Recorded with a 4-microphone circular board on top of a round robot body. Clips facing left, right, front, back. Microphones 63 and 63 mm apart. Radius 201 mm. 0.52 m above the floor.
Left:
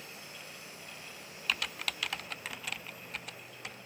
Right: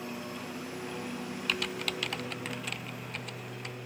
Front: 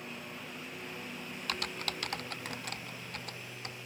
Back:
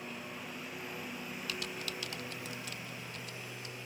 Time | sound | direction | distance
0.0 | a lawn mower | 95° right | ?
1.5 | typing on a keyboard | straight ahead | ?